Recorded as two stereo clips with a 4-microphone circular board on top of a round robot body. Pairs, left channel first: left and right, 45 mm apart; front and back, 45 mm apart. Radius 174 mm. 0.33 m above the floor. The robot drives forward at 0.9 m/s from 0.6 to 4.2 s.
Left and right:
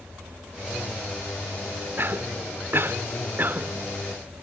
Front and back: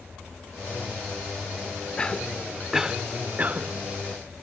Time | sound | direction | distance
2.0 | a cough | 65° right | 1.5 m